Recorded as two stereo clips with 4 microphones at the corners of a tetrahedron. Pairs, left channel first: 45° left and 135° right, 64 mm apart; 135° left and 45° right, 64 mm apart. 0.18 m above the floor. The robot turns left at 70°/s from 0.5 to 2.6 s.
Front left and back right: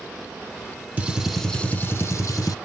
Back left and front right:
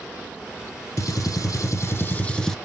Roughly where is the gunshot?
Behind.